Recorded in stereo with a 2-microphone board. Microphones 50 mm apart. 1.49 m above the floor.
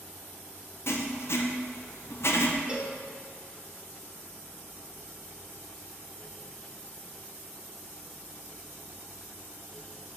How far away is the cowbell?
About 1.0 m.